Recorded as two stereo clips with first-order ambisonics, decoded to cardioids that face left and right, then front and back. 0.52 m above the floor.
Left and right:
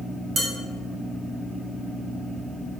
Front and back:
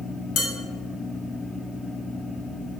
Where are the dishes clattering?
30° right, 0.7 m.